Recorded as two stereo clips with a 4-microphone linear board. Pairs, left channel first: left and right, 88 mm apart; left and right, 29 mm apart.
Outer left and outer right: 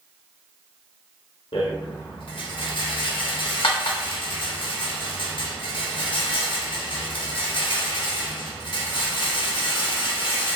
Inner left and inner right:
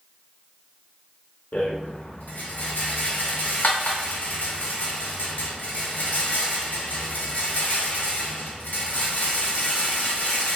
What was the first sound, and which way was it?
A rattle, 70° left (ahead or behind).